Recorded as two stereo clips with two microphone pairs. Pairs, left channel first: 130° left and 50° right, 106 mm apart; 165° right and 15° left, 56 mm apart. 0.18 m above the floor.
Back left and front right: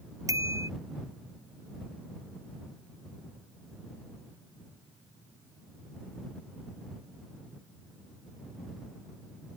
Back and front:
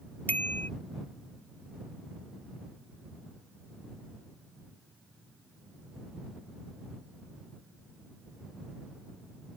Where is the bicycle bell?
110° right.